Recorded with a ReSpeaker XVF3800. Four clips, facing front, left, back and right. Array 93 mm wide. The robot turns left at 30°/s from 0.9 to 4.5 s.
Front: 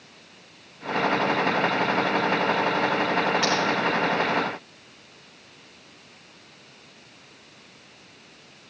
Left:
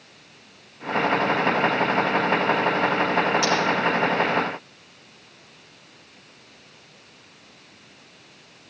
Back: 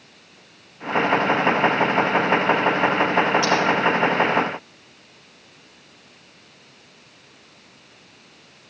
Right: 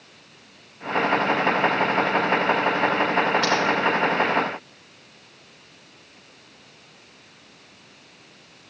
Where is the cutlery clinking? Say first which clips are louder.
Even, back 4 dB; 35° right, 4 m; by 3.5 s 40° right, 4 m.